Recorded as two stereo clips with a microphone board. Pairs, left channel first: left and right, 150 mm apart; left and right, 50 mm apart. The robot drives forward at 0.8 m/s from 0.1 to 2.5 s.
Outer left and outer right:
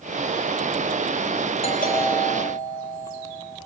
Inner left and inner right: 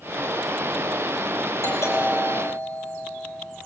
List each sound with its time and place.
1.6 s a doorbell: 70° left (ahead or behind), 7 m